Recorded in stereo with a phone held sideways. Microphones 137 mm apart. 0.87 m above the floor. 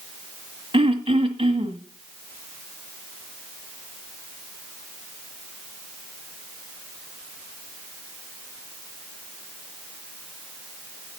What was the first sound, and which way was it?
Throat clearing, 40° right (ahead or behind).